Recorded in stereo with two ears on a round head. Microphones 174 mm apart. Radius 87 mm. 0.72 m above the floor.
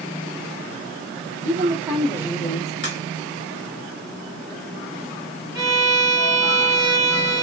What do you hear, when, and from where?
1.4 s a woman speaking: 35° right (ahead or behind), 0.8 m; by 2.7 s 35° left (ahead or behind), 1.1 m
2.8 s a crack: 50° left (ahead or behind), 1.7 m
5.5 s a violin: 20° right (ahead or behind), 0.8 m